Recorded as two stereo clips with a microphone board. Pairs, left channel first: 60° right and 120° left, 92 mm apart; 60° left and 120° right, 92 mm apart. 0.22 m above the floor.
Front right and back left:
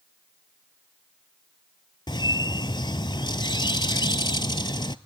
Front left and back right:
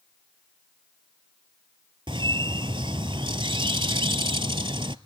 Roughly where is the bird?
Right.